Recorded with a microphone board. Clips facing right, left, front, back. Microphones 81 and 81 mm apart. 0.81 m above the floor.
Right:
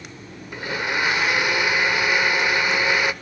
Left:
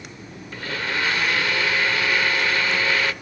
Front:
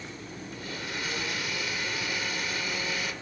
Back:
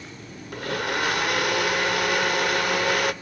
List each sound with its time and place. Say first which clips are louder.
0.5 s a blender: right 2 dB, back 12 dB; 160° right, 1.1 m